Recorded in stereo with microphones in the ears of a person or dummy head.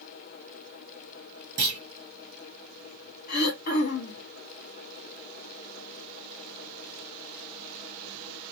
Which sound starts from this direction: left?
Throat clearing, at 3.3 s.